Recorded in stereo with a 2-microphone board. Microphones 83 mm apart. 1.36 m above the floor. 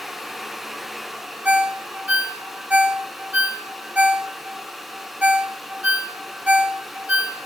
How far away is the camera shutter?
I don't hear a camera shutter.